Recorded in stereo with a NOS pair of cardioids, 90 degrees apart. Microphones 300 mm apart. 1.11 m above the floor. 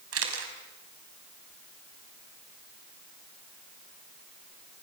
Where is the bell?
No bell in this recording.